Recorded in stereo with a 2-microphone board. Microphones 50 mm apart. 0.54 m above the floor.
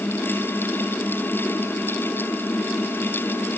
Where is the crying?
No crying in this recording.